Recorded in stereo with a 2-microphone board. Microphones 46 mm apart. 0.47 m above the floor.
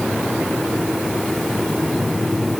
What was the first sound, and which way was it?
Only background noise.